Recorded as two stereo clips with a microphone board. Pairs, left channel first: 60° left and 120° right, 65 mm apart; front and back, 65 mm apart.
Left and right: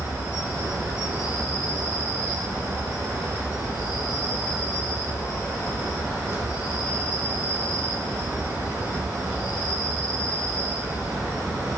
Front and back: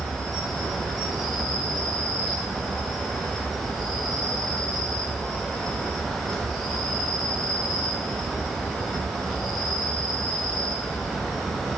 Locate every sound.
0.0 s an insect: 85° right, 1.6 m